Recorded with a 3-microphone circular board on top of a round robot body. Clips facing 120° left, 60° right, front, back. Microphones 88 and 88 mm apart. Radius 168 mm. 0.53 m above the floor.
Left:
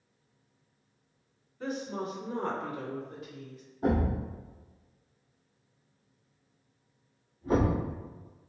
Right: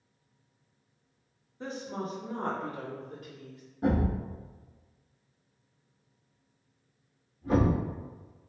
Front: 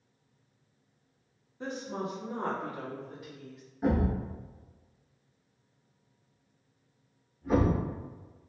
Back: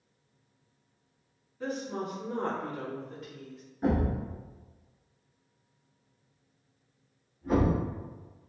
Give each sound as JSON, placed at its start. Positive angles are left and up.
{"t": 1.6, "sound": "a woman speaking", "azimuth_deg": -25, "distance_m": 1.2}
{"t": 3.8, "sound": "a thud", "azimuth_deg": -85, "distance_m": 0.8}